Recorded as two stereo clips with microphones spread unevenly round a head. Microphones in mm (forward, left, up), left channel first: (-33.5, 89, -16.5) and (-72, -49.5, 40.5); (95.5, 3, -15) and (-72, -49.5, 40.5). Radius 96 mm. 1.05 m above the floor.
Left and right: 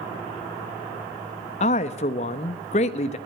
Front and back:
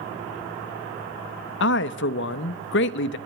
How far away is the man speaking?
About 0.9 m.